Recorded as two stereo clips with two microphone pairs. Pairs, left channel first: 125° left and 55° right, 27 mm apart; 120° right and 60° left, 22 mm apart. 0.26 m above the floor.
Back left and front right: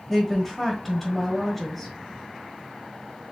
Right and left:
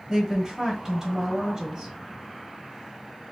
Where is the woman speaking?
70° left, 1.4 m.